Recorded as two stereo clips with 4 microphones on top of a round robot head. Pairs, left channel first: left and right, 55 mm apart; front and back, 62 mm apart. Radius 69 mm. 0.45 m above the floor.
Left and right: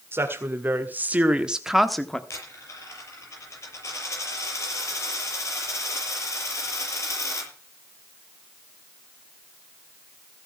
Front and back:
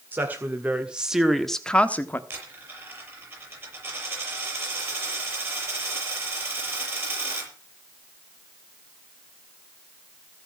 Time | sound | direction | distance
0.1 | a woman speaking | 125° right | 2.0 m
2.3 | a dropped coin | 125° left | 6.5 m